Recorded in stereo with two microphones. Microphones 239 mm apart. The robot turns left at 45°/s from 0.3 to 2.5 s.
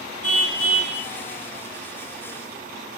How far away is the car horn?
About 5 m.